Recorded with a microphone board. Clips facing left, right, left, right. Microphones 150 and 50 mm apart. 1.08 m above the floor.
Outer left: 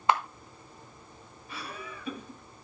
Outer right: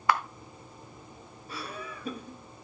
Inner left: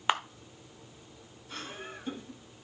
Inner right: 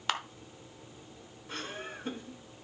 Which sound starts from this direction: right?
Laughter, at 1.5 s.